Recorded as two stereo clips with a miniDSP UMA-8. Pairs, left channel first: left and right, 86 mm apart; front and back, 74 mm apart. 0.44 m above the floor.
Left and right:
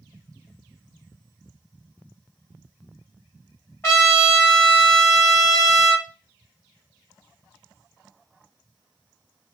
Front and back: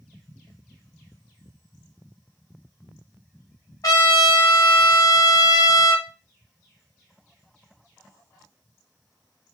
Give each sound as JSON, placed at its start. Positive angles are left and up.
{"t": 3.8, "sound": "a trumpet", "azimuth_deg": 30, "distance_m": 1.5}